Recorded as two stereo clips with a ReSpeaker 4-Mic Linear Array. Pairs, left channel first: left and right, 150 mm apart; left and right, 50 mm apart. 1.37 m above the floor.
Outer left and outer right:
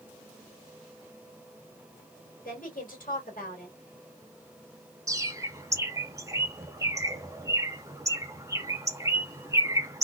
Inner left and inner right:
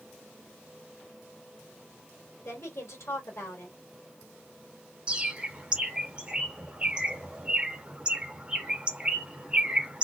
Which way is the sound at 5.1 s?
20° right (ahead or behind).